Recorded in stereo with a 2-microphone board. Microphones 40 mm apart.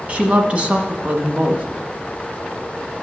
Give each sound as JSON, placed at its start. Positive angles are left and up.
{"t": 0.1, "sound": "a woman speaking", "side_deg": -35, "distance_m": 1.4}